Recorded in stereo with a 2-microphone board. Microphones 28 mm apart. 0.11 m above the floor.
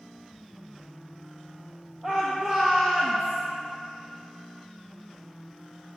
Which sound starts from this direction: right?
A shout, at 2.0 s.